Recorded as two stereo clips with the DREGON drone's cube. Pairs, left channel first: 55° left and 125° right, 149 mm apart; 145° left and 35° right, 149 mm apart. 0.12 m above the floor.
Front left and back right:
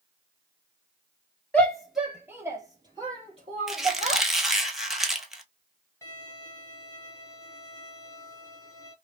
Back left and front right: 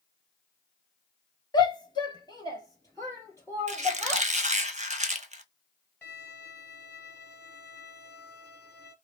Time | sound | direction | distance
1.5 | a shout | 130° left | 1.2 m
3.7 | a squeak | 35° right | 0.8 m
6.0 | a violin | 80° left | 1.8 m